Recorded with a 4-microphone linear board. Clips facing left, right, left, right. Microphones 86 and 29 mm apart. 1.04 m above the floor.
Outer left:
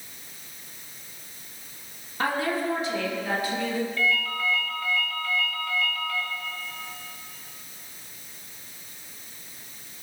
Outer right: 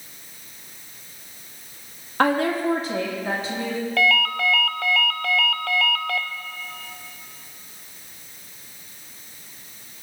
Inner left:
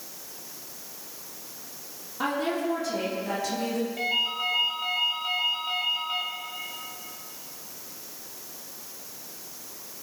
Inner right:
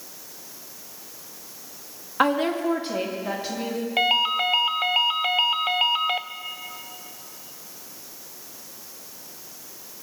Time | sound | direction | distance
2.2 | a woman speaking | 70° right (ahead or behind) | 1.7 m
4.0 | a ringtone | 85° right | 0.6 m